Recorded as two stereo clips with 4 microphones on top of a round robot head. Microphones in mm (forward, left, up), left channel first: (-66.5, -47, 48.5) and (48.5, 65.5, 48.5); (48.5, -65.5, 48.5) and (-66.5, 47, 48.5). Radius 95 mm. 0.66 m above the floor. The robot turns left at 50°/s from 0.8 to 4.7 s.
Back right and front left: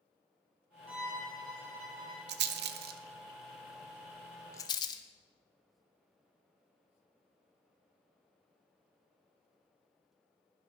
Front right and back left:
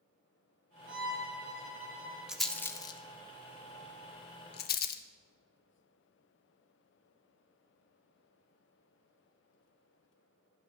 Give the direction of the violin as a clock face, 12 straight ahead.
7 o'clock.